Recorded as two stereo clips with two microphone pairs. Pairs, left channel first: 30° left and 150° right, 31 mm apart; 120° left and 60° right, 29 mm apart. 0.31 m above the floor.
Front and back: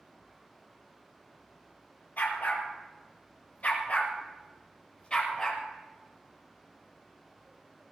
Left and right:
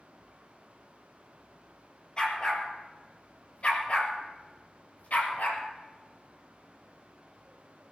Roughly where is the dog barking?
Ahead left.